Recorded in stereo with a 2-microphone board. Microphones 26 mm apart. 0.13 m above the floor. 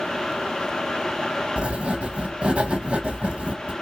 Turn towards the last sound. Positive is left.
turn(degrees=-55)  # may be behind; listen again after turning